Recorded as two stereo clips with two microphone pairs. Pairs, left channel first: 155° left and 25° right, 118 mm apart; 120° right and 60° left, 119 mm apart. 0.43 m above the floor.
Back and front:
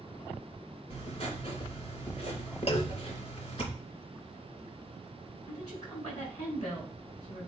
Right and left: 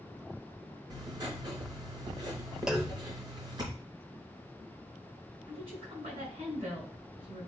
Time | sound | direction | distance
0.9 | writing | 115° left | 2.5 m
2.7 | a clunk | 145° left | 0.8 m
5.5 | a woman speaking | 100° left | 4.5 m